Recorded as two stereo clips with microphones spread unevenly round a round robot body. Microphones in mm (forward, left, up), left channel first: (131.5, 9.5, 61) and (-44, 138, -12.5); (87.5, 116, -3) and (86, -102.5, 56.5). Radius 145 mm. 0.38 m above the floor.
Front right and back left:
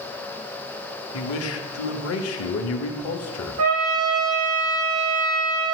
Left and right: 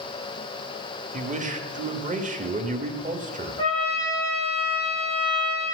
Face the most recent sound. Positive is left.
turn(degrees=165)